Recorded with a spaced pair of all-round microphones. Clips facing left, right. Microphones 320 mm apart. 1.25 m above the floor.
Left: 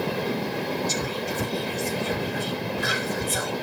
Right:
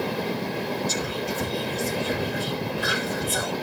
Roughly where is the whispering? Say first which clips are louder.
Even; left.